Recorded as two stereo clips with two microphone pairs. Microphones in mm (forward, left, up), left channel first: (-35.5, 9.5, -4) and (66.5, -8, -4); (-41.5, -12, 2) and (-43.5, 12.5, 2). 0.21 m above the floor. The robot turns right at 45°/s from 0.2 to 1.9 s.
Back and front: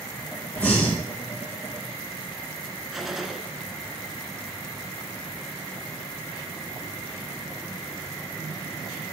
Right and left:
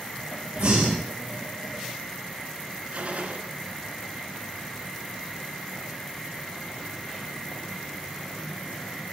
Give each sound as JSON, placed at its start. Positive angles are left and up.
{"t": 0.6, "sound": "breathing", "azimuth_deg": 90, "distance_m": 6.0}
{"t": 2.9, "sound": "a gunshot", "azimuth_deg": 80, "distance_m": 2.0}